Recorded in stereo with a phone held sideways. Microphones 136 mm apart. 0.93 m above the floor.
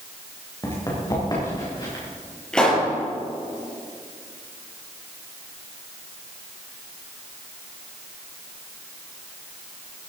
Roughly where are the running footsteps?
Left.